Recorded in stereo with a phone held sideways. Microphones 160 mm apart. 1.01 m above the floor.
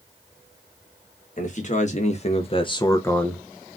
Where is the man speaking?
50° left (ahead or behind), 1.1 m; by 3.5 s 5° right (ahead or behind), 0.6 m.